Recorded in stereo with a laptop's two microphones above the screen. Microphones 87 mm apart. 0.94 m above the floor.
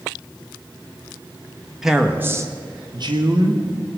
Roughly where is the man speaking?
Centre.